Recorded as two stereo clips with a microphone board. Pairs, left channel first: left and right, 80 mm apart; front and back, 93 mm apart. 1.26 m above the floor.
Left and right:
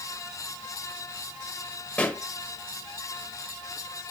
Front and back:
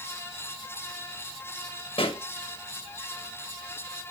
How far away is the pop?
About 1.2 m.